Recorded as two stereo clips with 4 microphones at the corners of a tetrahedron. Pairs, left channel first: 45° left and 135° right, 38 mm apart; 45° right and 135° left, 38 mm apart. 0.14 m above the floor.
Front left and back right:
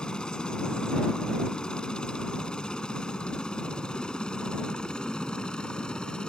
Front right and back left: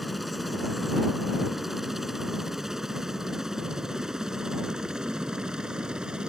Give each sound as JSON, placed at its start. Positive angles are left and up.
{"t": 0.0, "sound": "a helicopter", "azimuth_deg": 45}